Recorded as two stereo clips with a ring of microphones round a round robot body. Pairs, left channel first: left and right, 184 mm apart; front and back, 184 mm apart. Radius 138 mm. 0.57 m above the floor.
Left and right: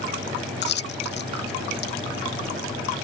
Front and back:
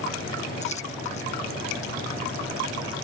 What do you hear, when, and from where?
0.6 s a dropped coin: 65° left